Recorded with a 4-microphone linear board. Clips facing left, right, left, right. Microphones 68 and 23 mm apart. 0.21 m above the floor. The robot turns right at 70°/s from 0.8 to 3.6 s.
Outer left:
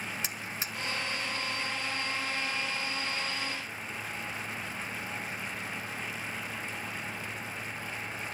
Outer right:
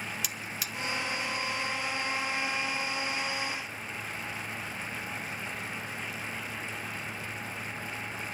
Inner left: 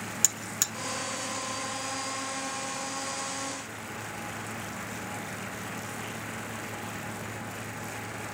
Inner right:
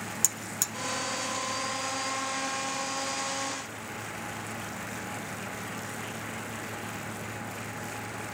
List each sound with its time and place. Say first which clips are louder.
0.2 s a buzzer: even, inner left 3 dB; 30° left (ahead or behind), 1.1 m